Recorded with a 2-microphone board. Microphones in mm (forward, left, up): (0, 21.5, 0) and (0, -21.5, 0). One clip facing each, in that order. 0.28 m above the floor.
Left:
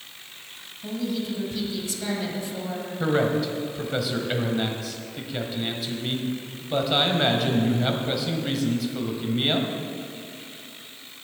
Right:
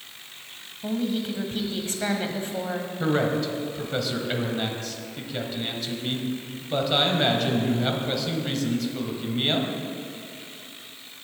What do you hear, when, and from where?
0.8 s a woman speaking: 45° right (ahead or behind), 1.4 m
3.0 s a man speaking: 5° left (ahead or behind), 1.2 m